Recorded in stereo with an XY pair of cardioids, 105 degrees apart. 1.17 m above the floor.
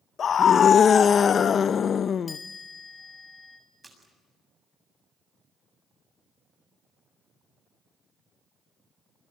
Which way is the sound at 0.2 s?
50° left.